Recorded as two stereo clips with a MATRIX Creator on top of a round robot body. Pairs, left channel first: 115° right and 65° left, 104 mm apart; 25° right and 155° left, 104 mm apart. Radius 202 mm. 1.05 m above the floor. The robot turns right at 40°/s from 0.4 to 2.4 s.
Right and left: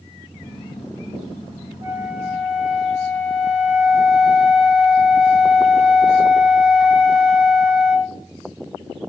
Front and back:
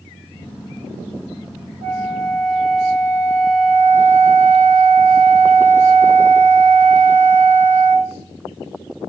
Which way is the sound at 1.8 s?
125° left.